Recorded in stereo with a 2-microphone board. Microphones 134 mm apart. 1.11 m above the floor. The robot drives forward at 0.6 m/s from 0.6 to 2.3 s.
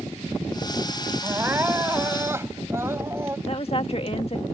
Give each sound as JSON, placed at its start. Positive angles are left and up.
{"t": 1.2, "sound": "crying", "side_deg": -15}
{"t": 3.5, "sound": "a woman speaking", "side_deg": 50}